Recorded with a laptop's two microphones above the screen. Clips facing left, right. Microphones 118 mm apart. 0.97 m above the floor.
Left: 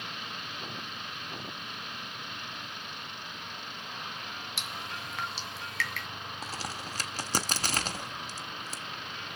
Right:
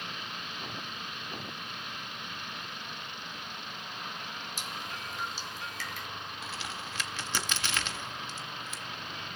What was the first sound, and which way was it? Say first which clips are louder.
Dripping: left 1 dB; 75° left (ahead or behind).